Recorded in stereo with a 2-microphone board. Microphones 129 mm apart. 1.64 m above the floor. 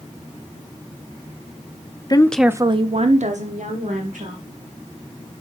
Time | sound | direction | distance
2.1 | a woman speaking | 30° left (ahead or behind) | 0.6 m